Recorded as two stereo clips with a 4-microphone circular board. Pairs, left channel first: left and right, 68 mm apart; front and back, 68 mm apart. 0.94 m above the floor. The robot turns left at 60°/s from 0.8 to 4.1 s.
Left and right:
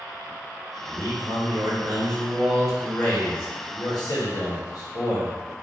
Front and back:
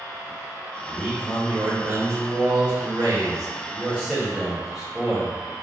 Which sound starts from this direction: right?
A man speaking, at 0.8 s.